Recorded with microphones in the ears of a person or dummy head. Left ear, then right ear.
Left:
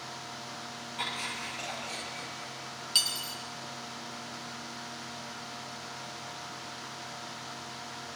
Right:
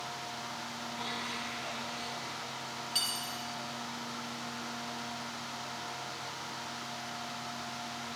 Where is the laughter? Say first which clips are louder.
Left 4 dB; 60° left (ahead or behind), 4.5 m; by 2.5 s 70° left (ahead or behind), 5.5 m.